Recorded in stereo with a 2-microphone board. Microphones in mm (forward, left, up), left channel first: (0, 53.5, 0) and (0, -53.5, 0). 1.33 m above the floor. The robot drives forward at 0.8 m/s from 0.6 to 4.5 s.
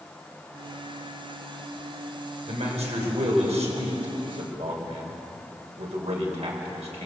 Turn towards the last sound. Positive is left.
turn(degrees=-80)